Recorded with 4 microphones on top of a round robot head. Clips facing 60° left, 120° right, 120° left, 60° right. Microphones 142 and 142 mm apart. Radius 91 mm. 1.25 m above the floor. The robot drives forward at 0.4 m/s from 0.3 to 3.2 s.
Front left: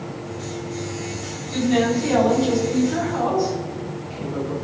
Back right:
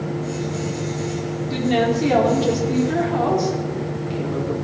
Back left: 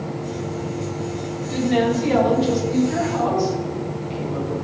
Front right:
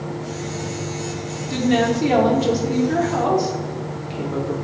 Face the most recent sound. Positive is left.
turn(degrees=-95)